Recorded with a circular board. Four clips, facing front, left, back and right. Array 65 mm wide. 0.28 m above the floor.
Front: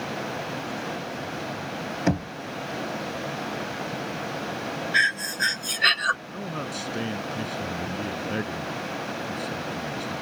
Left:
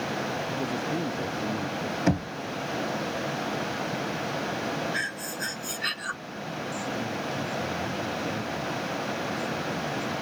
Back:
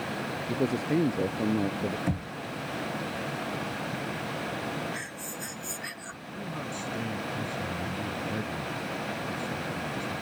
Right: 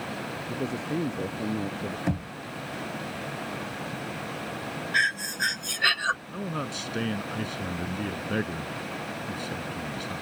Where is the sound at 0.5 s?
170° right; by 2.0 s 165° right.